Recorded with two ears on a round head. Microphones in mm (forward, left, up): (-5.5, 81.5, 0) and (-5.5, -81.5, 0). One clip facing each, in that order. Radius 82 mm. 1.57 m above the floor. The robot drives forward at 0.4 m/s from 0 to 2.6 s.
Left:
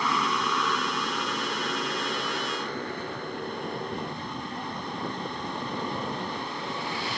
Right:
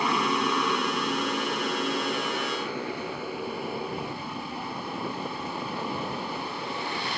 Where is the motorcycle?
15° right (ahead or behind); by 7.2 s centre (ahead or behind).